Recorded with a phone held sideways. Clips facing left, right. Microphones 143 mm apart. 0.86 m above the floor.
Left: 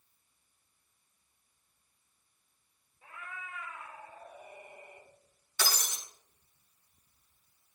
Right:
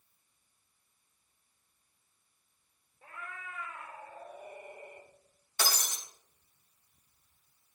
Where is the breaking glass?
50° right (ahead or behind), 4 m.